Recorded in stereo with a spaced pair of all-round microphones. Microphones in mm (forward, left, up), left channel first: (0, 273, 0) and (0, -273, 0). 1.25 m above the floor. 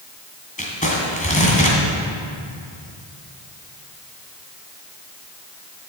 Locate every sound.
0.6 s crumpling: 15° left (ahead or behind), 1.9 m